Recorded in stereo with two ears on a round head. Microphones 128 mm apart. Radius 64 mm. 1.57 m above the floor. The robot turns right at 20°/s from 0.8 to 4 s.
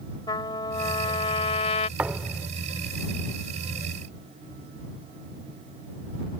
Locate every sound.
0.3 s a trumpet: 30° left (ahead or behind); by 1.9 s 50° left (ahead or behind)
2.0 s a thud: 10° right (ahead or behind); by 2.5 s 5° right (ahead or behind)